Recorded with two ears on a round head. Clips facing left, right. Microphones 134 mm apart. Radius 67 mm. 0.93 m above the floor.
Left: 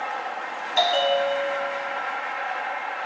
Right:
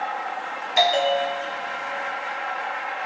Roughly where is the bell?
Centre.